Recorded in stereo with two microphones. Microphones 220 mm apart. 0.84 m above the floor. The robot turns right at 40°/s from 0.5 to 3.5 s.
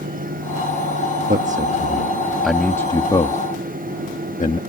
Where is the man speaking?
40° right (ahead or behind); by 4.6 s 35° left (ahead or behind).